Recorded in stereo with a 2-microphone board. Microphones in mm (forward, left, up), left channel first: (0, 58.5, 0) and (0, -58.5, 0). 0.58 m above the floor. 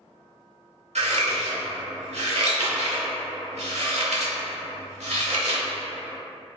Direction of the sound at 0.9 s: 70° right (ahead or behind).